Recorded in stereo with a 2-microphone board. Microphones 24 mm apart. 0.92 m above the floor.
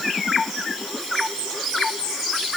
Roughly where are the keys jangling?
No keys jangling in this recording.